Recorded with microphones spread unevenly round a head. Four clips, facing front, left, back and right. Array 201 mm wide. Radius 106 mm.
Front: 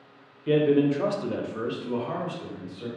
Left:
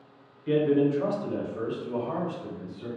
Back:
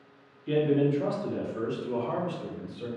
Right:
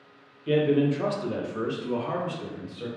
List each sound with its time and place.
0.5 s a man speaking: 5° right, 0.9 m; by 2.9 s 85° right, 1.6 m